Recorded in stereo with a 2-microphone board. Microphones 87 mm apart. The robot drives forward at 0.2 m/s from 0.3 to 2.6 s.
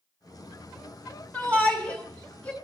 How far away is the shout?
About 2.5 m.